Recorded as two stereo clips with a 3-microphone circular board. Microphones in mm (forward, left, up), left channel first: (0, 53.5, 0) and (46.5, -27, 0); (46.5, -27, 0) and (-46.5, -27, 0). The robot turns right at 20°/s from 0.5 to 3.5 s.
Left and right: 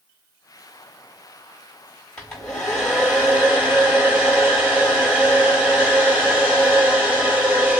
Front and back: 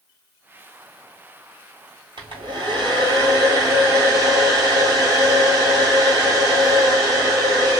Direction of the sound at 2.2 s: 160° right.